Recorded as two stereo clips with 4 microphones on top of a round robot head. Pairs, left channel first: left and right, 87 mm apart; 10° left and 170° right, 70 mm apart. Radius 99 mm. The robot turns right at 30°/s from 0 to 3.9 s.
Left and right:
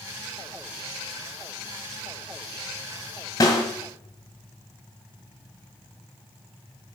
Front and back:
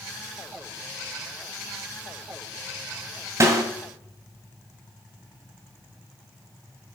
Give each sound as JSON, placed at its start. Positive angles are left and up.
{"t": 3.4, "sound": "a snare drum", "azimuth_deg": 150, "distance_m": 1.8}